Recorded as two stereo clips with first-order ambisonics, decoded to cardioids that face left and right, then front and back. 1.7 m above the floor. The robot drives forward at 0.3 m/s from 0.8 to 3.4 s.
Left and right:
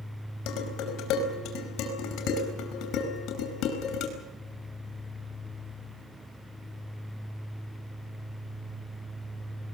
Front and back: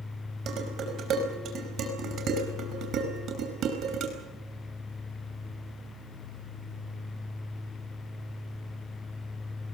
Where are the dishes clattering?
130° left, 5 m; by 4.1 s 135° left, 5.5 m.